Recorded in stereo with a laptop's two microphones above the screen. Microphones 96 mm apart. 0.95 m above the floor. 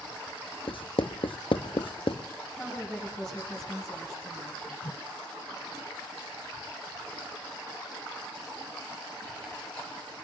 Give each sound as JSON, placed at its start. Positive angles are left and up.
{"t": 0.7, "sound": "writing", "side_deg": 65, "distance_m": 0.5}
{"t": 2.5, "sound": "a woman speaking", "side_deg": 10, "distance_m": 7.0}
{"t": 4.8, "sound": "a whoosh", "side_deg": 50, "distance_m": 0.5}